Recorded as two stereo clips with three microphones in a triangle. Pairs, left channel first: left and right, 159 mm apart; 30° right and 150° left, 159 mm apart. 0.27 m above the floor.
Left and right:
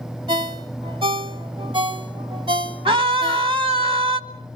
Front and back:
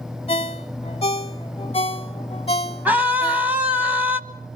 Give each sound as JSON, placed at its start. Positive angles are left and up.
{"t": 0.3, "sound": "a ringtone", "azimuth_deg": -50, "distance_m": 0.9}
{"t": 2.9, "sound": "a scream", "azimuth_deg": -135, "distance_m": 1.5}